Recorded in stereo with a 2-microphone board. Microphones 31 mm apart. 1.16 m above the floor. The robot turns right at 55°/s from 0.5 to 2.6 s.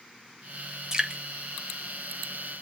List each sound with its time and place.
0.9 s dripping: 20° right (ahead or behind), 1.7 m; by 1.2 s 35° right (ahead or behind), 1.7 m